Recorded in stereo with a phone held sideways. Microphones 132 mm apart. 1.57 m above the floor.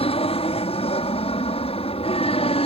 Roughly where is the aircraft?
Left.